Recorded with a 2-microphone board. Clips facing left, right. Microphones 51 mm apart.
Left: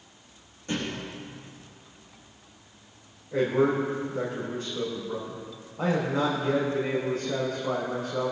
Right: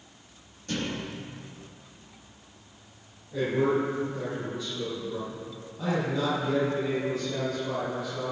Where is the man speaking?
50° left (ahead or behind), 5.5 m.